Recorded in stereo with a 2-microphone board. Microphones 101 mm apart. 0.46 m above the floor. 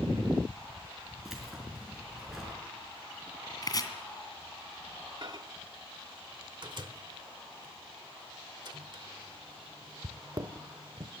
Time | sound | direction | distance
1.2 | keys jangling | 5° right (ahead or behind) | 4.5 m
3.6 | chopping | 40° left (ahead or behind) | 2.5 m
5.2 | a microwave | 50° right (ahead or behind) | 0.9 m